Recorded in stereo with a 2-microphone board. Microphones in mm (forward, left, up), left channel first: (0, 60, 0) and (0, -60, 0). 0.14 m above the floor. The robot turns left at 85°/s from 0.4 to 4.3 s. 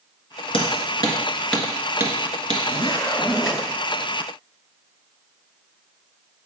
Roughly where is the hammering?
Left.